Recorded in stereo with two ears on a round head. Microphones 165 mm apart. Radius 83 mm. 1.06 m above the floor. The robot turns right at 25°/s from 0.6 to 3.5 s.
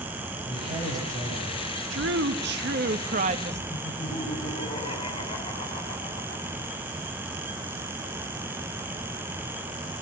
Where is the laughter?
30° left (ahead or behind), 7 m.